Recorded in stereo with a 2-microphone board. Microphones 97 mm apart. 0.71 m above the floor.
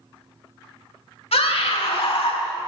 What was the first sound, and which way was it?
A scream, 75° left (ahead or behind).